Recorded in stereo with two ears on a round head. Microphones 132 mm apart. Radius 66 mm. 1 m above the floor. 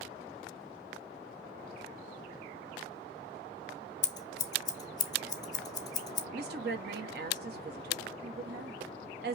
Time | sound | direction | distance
4.0 | scissors | 25° left (ahead or behind) | 0.6 m
6.3 | a woman speaking | 75° right (ahead or behind) | 1.1 m